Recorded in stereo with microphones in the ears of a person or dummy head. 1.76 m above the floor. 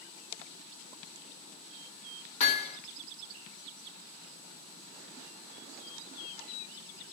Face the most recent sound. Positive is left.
turn(degrees=40)  # may be behind; listen again after turning